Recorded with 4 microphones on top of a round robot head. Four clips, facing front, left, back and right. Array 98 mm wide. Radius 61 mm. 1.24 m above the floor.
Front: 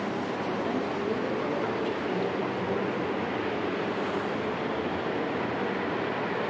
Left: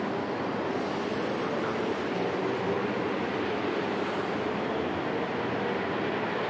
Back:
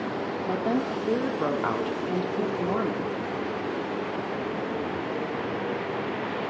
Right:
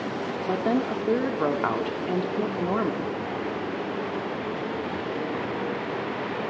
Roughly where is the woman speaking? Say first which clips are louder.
Right 5 dB, back 5 dB; behind right.